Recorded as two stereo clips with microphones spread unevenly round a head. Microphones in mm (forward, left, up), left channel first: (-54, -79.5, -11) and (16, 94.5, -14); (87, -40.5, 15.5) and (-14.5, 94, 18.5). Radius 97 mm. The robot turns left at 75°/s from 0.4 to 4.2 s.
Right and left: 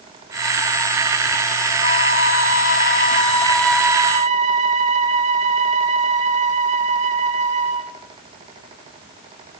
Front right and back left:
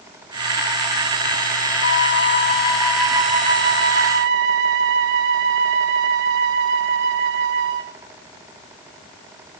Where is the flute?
60° right, 3 m; by 8.0 s 120° left, 3 m.